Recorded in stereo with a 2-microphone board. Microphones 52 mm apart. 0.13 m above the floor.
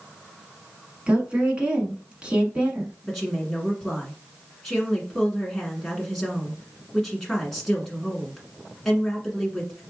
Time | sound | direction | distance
1.1 | a woman speaking | 20° right (ahead or behind) | 1.1 m
3.0 | a woman speaking | 5° left (ahead or behind) | 1.4 m